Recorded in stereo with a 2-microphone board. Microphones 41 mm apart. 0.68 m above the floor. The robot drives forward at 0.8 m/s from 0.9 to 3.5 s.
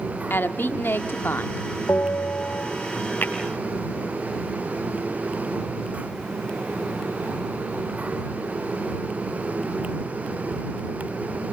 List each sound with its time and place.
0.3 s a woman speaking: 60° left (ahead or behind), 1.5 m; by 1.7 s 55° left (ahead or behind), 1.6 m
1.9 s a bell: 75° left (ahead or behind), 2.5 m; by 2.7 s 65° left (ahead or behind), 2.5 m
3.2 s tapping: 50° left (ahead or behind), 7 m; by 3.3 s 45° left (ahead or behind), 7.5 m